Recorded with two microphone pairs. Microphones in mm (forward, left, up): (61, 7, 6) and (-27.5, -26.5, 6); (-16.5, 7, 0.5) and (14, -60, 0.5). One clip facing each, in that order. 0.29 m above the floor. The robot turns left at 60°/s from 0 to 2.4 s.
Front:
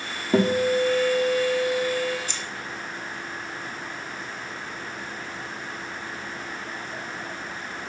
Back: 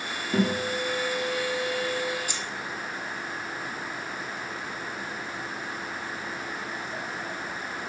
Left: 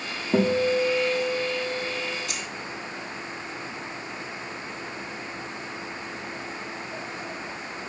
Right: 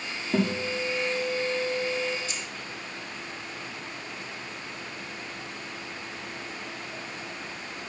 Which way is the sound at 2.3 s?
120° left.